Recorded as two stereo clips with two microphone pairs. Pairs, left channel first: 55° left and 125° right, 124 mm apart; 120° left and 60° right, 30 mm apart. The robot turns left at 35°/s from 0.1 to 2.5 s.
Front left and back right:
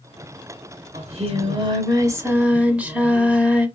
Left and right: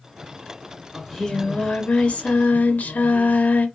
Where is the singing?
155° right, 1.3 m; by 3.7 s 150° left, 1.3 m.